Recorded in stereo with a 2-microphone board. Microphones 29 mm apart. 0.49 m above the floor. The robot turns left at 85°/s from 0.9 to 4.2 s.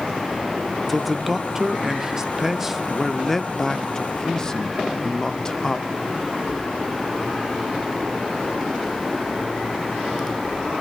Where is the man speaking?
Centre (ahead or behind), 0.7 m; by 5.9 s 20° left (ahead or behind), 0.7 m.